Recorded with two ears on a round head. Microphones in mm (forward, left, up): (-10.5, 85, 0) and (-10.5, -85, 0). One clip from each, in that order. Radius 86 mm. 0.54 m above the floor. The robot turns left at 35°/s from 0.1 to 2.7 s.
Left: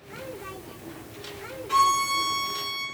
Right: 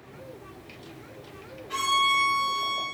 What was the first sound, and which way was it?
A violin, 90° left.